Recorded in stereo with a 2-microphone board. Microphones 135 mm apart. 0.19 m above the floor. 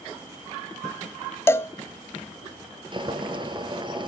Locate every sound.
1.5 s a cowbell: 20° left (ahead or behind), 0.6 m
2.9 s boiling: 35° right (ahead or behind), 1.9 m